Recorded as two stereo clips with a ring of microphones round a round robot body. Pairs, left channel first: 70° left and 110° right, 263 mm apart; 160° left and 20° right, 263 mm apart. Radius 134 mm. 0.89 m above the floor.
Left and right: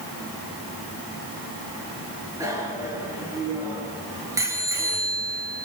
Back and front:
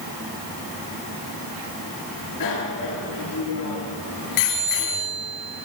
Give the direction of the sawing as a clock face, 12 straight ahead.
No sawing in this recording.